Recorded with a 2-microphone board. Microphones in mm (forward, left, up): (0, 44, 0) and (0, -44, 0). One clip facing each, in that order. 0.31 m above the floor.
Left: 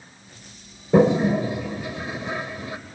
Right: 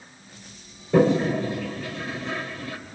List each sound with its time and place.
0.9 s a toilet flushing: 20° left (ahead or behind), 1.1 m